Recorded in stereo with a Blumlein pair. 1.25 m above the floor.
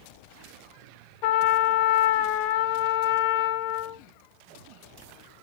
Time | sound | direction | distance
1.2 | a trumpet | 45° left | 0.7 m